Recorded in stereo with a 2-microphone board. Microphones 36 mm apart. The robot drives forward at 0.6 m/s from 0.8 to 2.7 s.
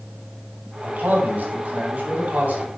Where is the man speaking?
65° right (ahead or behind), 2.5 m; by 2.7 s 50° right (ahead or behind), 3 m.